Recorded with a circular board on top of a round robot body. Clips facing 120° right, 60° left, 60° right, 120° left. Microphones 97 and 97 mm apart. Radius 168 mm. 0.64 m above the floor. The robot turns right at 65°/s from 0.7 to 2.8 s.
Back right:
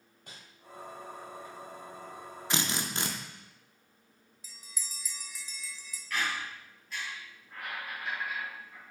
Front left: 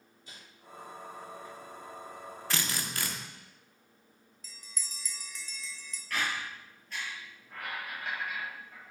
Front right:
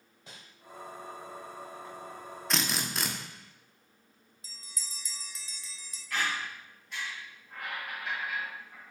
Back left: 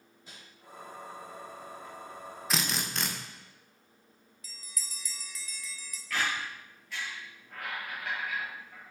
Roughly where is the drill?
Behind.